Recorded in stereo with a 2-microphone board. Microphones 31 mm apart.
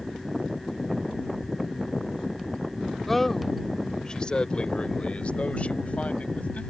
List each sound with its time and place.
3.1 s a man speaking: centre (ahead or behind); by 6.7 s 45° left (ahead or behind)